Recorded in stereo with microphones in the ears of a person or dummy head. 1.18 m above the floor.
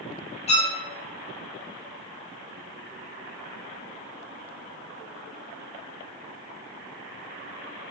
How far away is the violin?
About 1.6 m.